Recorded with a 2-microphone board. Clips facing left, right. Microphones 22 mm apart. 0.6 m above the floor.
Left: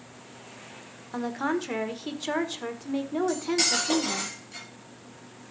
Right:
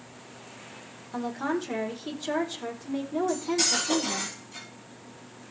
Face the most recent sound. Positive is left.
turn(degrees=40)  # may be behind; listen again after turning